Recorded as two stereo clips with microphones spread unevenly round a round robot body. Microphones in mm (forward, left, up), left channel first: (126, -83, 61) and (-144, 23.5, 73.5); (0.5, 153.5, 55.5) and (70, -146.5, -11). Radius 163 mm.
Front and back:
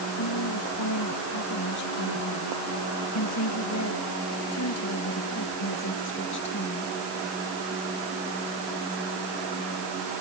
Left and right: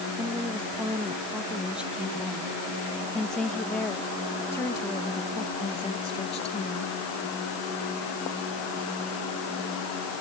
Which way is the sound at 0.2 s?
5° left.